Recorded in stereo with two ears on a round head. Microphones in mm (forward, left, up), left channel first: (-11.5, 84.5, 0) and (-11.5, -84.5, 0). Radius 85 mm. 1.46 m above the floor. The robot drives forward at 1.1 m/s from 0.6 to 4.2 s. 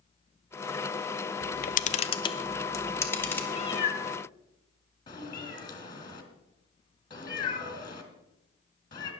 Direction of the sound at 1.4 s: 50° left (ahead or behind).